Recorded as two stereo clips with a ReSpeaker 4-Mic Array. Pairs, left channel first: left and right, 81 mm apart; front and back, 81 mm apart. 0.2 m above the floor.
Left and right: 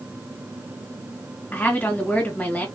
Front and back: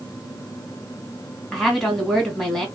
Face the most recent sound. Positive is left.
turn(degrees=80)